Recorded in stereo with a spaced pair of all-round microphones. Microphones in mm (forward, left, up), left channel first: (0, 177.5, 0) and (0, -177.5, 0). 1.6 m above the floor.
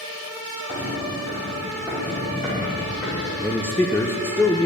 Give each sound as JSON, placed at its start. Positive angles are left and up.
{"t": 0.7, "sound": "footsteps", "side_deg": -15, "distance_m": 2.5}
{"t": 3.4, "sound": "a man speaking", "side_deg": 5, "distance_m": 0.5}